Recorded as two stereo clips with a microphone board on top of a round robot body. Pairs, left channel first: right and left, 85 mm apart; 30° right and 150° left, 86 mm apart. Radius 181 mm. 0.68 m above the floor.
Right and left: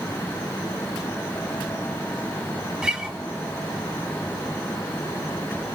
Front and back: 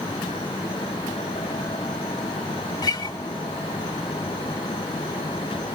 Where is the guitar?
5° left, 4.5 m.